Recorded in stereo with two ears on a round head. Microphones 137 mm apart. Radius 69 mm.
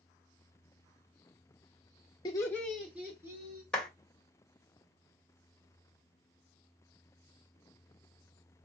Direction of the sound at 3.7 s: 5° left (ahead or behind).